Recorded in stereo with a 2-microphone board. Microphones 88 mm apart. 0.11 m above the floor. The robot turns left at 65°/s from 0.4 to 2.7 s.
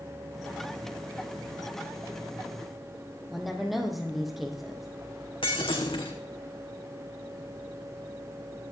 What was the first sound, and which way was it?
A woman speaking, centre (ahead or behind).